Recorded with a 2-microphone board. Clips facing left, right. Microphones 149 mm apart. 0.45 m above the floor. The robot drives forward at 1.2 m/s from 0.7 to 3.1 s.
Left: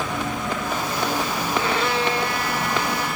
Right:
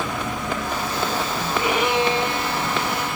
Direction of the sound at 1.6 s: 15° right (ahead or behind).